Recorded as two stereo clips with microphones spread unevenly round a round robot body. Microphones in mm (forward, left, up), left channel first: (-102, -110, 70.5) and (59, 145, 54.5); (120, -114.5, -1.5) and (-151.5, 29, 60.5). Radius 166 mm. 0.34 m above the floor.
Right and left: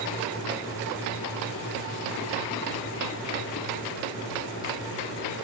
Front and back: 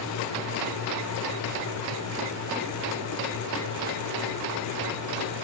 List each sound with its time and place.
Only background noise.